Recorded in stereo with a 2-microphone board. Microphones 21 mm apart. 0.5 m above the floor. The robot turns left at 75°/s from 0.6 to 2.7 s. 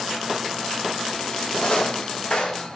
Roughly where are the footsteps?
Left.